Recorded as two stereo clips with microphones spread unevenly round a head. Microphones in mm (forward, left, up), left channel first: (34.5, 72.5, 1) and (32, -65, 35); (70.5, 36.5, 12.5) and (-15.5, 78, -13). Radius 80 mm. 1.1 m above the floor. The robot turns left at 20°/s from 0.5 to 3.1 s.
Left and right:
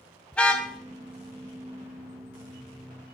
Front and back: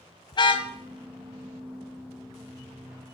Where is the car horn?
5° left, 3.5 m; by 0.7 s straight ahead, 3.5 m.